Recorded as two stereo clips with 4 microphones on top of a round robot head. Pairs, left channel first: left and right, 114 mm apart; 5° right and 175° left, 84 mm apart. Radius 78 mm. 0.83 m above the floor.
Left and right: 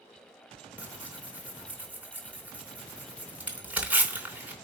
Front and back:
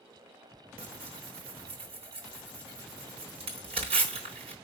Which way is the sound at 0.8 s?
170° right.